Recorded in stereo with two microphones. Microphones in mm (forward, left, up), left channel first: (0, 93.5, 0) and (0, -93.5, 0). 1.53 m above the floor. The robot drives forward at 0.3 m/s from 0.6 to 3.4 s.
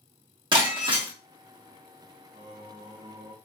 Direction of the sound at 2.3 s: 25° right (ahead or behind).